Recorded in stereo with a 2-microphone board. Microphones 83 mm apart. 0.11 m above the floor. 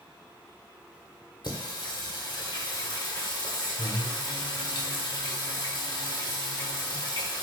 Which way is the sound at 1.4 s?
55° left (ahead or behind).